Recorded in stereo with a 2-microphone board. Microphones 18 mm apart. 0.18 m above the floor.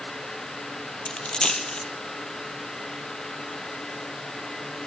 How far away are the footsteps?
No footsteps in this recording.